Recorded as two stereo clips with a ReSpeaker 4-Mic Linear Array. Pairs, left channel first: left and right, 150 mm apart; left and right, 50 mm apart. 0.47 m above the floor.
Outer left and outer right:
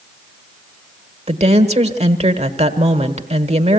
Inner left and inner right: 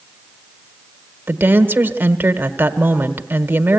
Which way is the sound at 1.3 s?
45° right (ahead or behind).